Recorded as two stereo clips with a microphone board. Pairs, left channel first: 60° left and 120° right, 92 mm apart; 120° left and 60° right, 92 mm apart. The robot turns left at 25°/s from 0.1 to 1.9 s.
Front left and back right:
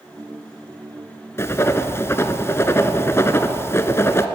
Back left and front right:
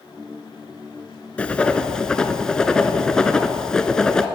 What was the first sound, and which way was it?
Writing, 60° left.